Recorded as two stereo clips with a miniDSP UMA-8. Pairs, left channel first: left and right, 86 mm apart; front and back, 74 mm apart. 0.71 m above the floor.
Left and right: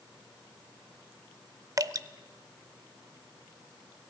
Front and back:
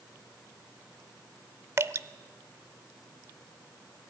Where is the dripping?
130° right, 0.6 m.